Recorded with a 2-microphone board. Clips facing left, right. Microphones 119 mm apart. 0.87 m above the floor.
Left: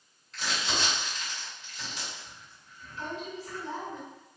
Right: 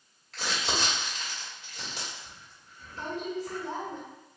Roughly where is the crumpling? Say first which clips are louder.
Right 1 dB; right.